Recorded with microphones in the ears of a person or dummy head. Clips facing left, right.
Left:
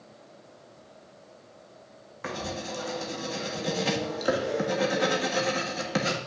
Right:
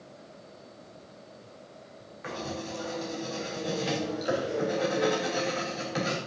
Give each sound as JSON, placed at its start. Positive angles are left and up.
{"t": 2.2, "sound": "writing", "side_deg": 65, "distance_m": 1.5}